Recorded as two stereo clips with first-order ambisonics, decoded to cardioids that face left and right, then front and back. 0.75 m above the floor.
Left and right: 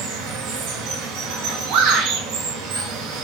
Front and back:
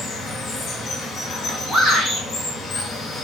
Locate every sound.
0.0 s running water: 70° right, 6 m
1.7 s a shout: 100° right, 6.5 m